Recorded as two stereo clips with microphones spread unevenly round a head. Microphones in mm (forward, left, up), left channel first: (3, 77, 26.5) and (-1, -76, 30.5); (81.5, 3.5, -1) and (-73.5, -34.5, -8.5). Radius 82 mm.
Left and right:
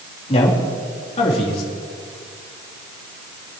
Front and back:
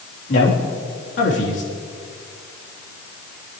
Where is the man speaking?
40° left, 3.5 m.